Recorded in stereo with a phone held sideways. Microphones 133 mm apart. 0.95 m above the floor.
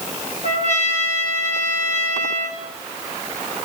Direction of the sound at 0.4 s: 60° left (ahead or behind).